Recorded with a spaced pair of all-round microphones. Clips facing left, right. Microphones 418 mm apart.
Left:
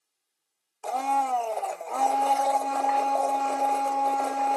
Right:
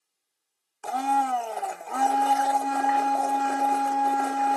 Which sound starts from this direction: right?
A blender, at 0.8 s.